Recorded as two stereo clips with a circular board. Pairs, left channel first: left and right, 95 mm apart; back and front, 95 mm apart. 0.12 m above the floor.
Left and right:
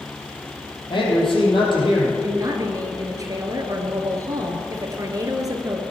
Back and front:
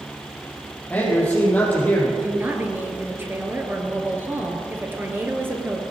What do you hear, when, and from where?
0.9 s a man speaking: 110° left, 4.5 m
2.2 s a woman speaking: 60° right, 1.7 m